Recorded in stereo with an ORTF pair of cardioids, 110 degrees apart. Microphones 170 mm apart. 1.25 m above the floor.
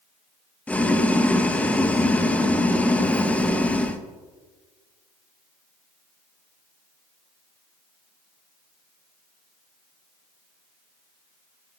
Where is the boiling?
10° left, 1.0 m.